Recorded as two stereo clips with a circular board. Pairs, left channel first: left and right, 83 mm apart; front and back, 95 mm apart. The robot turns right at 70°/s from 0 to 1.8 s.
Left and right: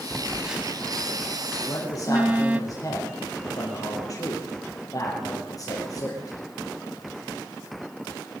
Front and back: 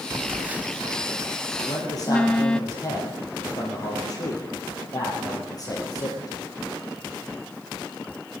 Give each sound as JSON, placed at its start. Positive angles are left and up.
{"t": 0.1, "sound": "a phone buzzing", "azimuth_deg": 180, "distance_m": 0.6}
{"t": 1.6, "sound": "a man speaking", "azimuth_deg": 30, "distance_m": 4.5}